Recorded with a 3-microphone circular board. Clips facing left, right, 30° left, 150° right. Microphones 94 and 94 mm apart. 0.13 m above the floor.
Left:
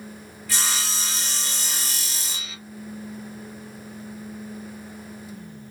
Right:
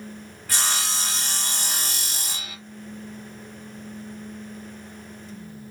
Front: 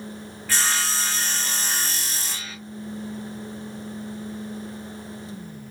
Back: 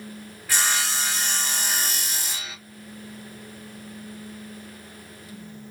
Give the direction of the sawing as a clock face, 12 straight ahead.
3 o'clock.